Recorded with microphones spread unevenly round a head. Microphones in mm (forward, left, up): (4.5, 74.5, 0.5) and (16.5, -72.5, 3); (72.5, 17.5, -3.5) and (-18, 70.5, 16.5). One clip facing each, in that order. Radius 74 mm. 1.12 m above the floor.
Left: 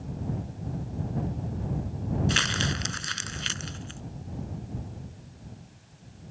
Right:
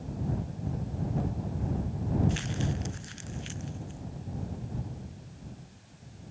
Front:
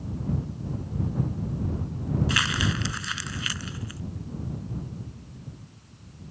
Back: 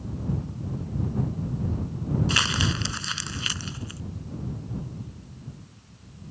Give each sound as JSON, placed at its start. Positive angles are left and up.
{"t": 2.3, "sound": "crumpling", "azimuth_deg": 95}